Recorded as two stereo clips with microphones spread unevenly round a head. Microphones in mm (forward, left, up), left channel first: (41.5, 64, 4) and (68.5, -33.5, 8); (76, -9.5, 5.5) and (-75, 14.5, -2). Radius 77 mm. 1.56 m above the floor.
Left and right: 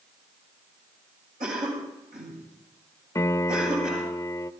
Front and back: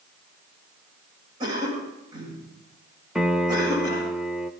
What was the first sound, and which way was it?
A cough, 120° right.